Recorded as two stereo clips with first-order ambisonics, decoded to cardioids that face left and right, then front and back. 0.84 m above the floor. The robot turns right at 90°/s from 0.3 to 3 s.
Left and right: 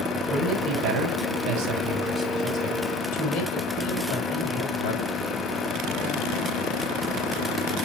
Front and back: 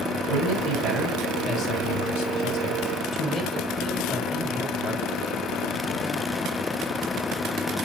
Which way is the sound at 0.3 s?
165° right.